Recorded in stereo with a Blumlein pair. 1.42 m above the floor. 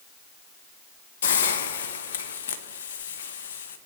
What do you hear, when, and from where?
1.2 s a hiss: 60° left, 0.8 m